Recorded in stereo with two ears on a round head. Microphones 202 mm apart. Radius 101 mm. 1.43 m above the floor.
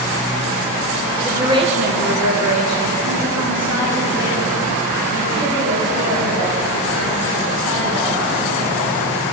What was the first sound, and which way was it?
A woman speaking, 5° right (ahead or behind).